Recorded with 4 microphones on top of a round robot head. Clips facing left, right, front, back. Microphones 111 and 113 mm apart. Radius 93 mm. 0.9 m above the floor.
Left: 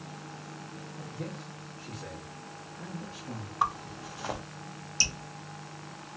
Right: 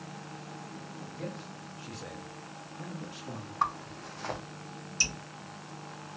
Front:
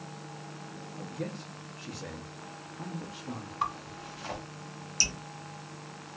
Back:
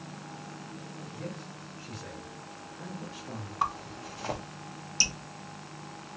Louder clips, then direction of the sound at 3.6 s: Left 1 dB, back 3 dB; 170° left.